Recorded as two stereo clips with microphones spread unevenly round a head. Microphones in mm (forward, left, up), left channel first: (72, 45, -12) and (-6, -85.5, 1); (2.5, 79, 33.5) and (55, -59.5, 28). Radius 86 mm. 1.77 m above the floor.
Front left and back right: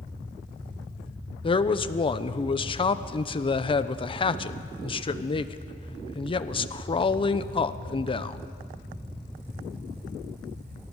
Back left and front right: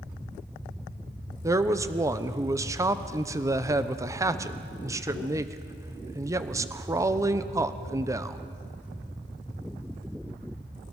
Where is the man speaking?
Straight ahead, 1.0 m.